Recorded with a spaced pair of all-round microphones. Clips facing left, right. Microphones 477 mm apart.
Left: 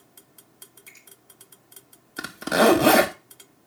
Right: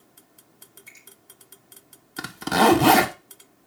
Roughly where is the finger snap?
Right.